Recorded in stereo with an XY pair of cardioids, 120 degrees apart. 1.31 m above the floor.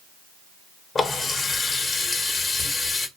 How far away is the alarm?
I don't hear an alarm.